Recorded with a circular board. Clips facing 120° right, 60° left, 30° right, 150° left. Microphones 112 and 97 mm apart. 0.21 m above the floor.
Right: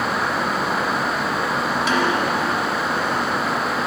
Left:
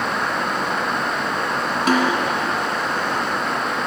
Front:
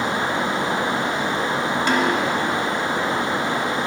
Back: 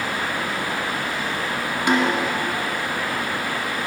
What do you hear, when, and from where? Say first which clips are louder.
1.9 s a snare drum: left 3 dB, back 2 dB; 85° left, 1.6 m